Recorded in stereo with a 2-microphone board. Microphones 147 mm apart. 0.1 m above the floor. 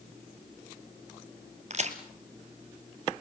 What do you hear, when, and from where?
1.7 s a crack: 50° right (ahead or behind), 1.8 m